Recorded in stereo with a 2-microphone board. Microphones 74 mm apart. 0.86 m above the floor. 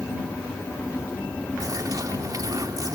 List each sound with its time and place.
1.6 s a bird: 55° right (ahead or behind)